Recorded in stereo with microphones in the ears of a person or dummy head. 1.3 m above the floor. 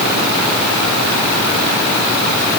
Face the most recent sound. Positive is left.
No sound to turn to.